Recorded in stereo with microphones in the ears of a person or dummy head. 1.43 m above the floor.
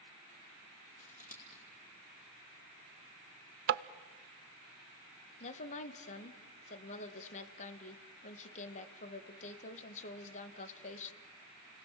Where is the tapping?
45° right (ahead or behind), 0.5 m.